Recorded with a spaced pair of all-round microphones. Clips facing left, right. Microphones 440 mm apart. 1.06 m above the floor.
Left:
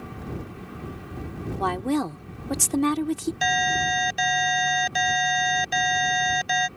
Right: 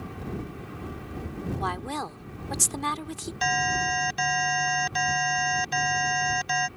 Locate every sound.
1.6 s a woman speaking: 70° left (ahead or behind)
3.4 s an alarm: 15° right (ahead or behind)